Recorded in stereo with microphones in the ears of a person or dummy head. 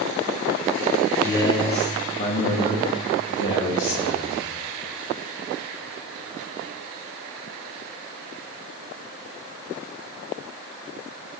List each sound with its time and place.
1.2 s a man speaking: 10° left (ahead or behind), 0.8 m; by 4.4 s 65° left (ahead or behind), 2.5 m